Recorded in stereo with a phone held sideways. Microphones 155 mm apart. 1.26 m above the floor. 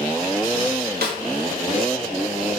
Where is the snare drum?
85° right, 2 m.